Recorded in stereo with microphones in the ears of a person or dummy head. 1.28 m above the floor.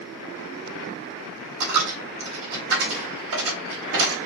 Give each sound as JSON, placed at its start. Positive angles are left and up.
{"t": 1.6, "sound": "a dropped coin", "side_deg": -70, "distance_m": 2.0}